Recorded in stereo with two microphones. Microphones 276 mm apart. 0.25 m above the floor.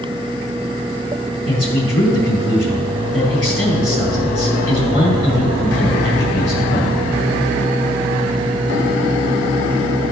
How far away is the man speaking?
About 3 m.